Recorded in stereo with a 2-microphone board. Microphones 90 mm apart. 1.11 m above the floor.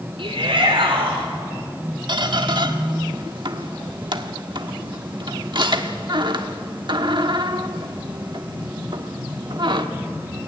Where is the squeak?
60° right (ahead or behind), 1.4 m.